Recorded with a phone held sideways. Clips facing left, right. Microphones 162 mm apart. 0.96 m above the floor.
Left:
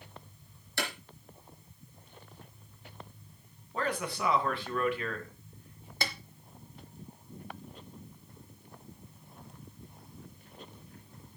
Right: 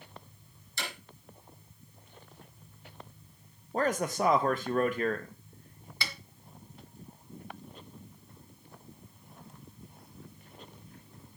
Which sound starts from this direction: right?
A man speaking, at 3.7 s.